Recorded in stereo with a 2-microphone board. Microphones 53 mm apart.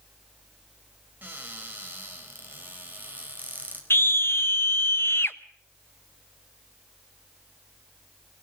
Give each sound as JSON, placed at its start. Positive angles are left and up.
{"t": 1.2, "sound": "a cupboard door", "side_deg": -35, "distance_m": 4.5}
{"t": 3.9, "sound": "a scream", "side_deg": 50, "distance_m": 1.1}